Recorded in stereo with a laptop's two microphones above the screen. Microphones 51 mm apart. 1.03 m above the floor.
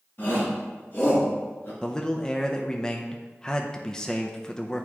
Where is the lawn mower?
I don't hear a lawn mower.